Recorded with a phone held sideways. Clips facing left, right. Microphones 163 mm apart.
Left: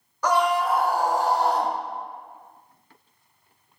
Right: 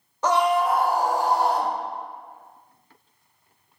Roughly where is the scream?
Right.